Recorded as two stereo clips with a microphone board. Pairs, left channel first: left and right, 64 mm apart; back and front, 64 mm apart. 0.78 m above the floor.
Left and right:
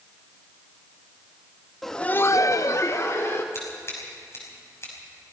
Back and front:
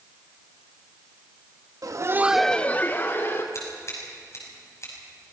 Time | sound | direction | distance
1.8 | laughter | straight ahead | 0.8 m
3.5 | scissors | 140° left | 6 m